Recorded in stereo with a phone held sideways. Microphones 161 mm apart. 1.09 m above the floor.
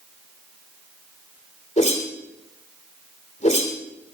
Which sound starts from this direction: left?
A whoosh, at 1.8 s.